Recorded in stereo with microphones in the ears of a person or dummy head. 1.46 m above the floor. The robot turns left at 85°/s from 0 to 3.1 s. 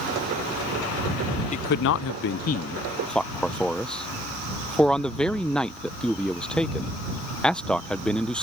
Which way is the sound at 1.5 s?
35° left (ahead or behind).